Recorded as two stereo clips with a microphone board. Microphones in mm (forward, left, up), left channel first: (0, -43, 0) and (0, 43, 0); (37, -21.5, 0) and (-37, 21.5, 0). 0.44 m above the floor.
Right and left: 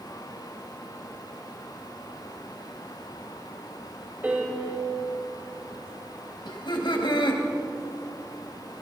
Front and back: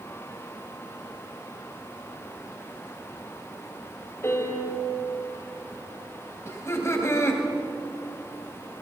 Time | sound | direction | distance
4.2 | a piano | 25° left | 1.9 m
6.5 | laughter | 85° right | 2.5 m